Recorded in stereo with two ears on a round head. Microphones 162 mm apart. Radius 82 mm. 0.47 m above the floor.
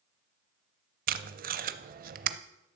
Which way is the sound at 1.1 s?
50° right (ahead or behind).